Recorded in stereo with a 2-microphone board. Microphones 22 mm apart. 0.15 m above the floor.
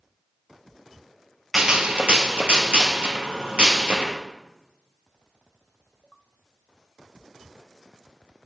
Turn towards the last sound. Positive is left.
turn(degrees=-70)  # may be behind; listen again after turning